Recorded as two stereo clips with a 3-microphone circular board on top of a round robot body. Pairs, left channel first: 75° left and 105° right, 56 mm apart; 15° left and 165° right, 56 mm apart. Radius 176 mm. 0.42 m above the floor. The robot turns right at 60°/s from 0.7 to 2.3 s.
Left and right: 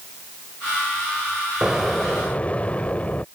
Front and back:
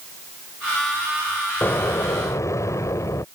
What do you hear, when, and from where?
1.6 s an explosion: 30° right; by 3.2 s 10° left